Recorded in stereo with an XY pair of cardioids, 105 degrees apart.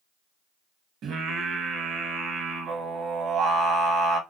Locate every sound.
1.0 s singing: 70° right, 0.9 m